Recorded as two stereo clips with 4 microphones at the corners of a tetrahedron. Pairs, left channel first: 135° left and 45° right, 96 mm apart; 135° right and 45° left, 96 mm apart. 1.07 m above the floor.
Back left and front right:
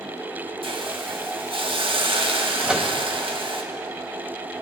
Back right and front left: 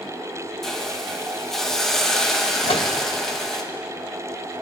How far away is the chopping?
No chopping in this recording.